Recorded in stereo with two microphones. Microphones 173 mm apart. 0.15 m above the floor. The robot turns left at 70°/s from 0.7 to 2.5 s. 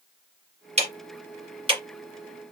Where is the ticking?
35° right (ahead or behind), 1.6 m; by 1.8 s 25° right (ahead or behind), 1.6 m.